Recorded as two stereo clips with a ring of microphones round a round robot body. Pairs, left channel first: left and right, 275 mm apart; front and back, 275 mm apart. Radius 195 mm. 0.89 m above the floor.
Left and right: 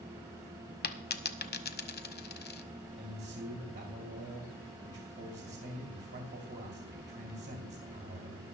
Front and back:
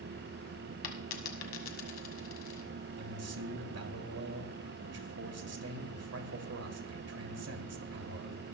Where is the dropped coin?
40° left, 1.1 m.